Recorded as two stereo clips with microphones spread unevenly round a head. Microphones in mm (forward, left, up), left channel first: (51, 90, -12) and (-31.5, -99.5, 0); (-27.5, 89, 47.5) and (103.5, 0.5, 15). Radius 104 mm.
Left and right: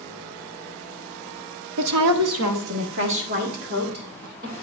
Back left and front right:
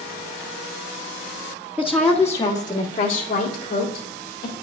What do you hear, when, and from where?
1.8 s a woman speaking: 110° right, 0.8 m; by 4.5 s 160° right, 3 m